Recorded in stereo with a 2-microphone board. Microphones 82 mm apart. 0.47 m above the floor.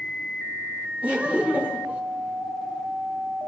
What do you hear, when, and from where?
1.0 s laughter: 15° right (ahead or behind), 0.8 m